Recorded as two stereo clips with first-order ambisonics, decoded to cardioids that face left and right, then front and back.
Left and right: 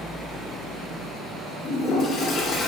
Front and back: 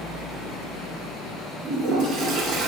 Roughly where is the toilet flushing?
Behind left.